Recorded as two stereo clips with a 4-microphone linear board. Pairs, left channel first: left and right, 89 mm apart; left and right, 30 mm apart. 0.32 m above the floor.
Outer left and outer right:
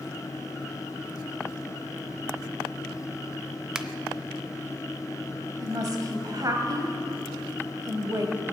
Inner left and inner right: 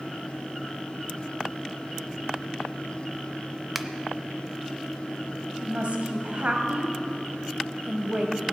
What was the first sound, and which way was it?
A finger snap, 5° right (ahead or behind).